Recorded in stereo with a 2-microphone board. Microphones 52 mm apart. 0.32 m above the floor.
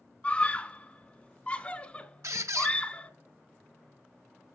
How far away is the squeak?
About 0.9 m.